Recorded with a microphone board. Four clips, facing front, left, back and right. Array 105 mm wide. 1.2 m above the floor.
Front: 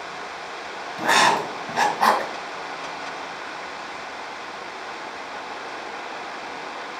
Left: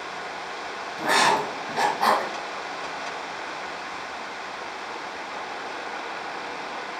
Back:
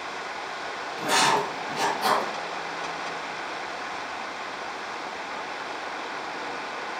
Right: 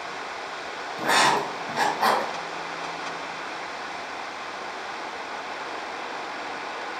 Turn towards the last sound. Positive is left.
turn(degrees=0)